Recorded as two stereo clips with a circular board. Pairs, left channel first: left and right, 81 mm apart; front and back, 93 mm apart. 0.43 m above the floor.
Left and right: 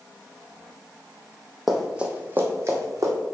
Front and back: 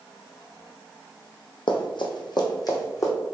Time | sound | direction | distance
1.7 | running footsteps | straight ahead | 0.9 m